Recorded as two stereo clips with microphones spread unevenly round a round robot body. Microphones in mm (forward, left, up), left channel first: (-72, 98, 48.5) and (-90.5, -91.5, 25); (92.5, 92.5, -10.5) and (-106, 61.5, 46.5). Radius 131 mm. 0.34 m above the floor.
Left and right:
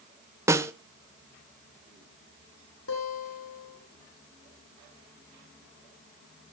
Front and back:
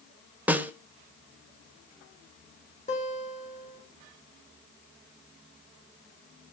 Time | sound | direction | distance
0.5 | a snare drum | 65° right | 0.9 m
2.9 | a guitar | 65° left | 8.5 m